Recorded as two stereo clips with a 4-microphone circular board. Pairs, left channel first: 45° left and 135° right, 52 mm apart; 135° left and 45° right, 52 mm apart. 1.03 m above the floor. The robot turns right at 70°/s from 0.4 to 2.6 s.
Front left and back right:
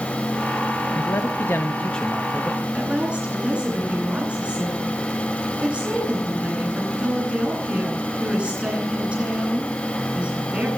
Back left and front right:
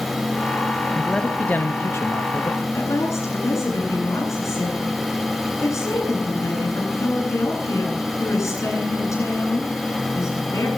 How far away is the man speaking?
About 1.1 m.